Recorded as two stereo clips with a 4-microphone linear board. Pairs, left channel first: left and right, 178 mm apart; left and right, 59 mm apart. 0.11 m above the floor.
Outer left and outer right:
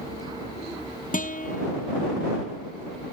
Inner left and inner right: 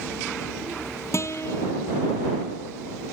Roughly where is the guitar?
Left.